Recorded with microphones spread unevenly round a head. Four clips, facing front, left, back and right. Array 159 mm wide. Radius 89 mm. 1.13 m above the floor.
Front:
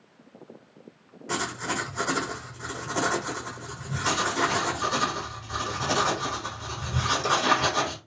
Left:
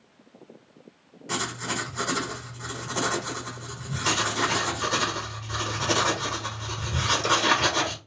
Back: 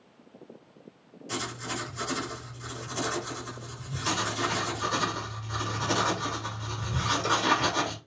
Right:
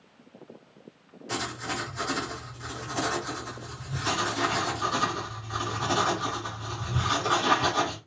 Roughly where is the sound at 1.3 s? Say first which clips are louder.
Left 2 dB, front 5 dB; ahead.